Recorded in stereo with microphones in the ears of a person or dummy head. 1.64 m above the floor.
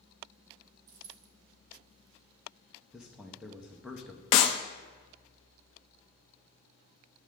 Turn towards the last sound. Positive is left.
turn(degrees=30)  # may be behind; listen again after turning